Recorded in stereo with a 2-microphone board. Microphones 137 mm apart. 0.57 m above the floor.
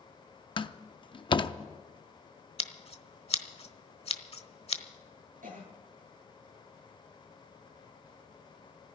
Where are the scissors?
50° left (ahead or behind), 1.1 m.